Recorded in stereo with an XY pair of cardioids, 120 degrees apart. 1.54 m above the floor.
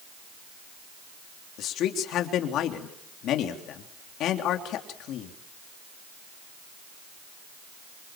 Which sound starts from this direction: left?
A man speaking, at 1.6 s.